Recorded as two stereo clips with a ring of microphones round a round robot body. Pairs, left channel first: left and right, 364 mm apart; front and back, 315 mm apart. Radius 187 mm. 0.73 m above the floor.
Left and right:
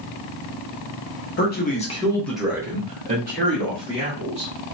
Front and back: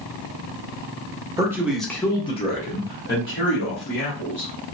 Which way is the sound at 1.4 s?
110° left.